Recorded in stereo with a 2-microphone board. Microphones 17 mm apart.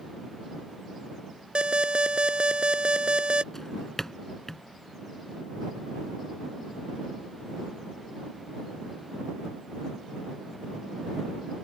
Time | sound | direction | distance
1.6 | an alarm | 70° right (ahead or behind) | ?
3.5 | a drawer | 25° left (ahead or behind) | ?